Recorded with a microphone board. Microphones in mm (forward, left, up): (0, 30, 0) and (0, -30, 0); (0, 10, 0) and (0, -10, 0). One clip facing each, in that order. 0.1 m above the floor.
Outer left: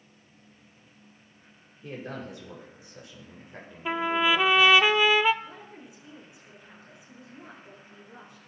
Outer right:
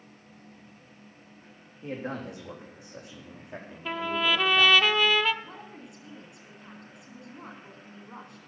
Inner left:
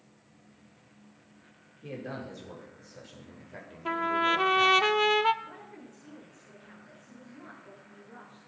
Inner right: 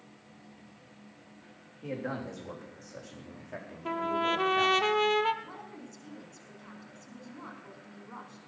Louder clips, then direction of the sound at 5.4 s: Even, inner right 1 dB; 70° right (ahead or behind).